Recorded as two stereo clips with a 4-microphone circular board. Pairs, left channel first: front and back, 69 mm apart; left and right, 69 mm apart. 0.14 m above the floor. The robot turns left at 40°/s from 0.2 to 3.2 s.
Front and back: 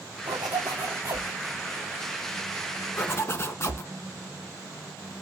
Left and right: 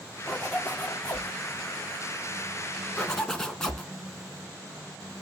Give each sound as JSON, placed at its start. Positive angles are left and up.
{"t": 0.3, "sound": "a zipper", "azimuth_deg": 175, "distance_m": 5.0}
{"t": 3.0, "sound": "a zipper", "azimuth_deg": 25, "distance_m": 1.2}